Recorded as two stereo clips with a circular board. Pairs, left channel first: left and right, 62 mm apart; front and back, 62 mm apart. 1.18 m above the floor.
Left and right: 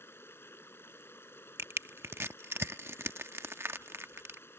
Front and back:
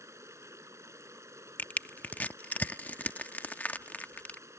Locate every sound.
0.0 s running water: 140° left
1.6 s crushing: 55° right